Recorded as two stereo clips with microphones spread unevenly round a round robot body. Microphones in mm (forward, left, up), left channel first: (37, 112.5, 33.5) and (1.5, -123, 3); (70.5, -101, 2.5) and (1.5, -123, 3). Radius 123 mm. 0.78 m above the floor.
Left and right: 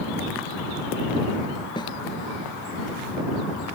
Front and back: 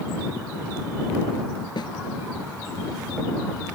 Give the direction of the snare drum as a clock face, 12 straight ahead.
12 o'clock.